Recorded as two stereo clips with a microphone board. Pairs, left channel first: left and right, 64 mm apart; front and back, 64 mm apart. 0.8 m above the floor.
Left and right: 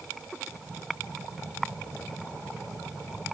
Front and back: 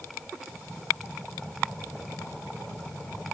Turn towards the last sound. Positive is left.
No sound to turn to.